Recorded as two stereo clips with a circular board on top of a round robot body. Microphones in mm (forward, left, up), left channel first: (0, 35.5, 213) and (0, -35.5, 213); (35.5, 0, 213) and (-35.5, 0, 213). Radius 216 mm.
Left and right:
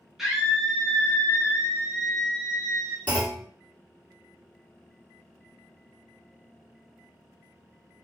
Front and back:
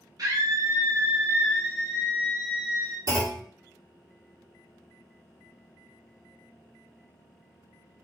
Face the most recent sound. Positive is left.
turn(degrees=155)